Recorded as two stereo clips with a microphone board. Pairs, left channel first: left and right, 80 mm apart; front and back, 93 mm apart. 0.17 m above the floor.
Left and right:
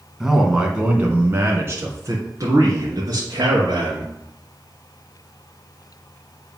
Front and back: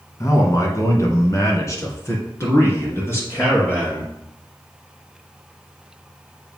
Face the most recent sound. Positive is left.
turn(degrees=-65)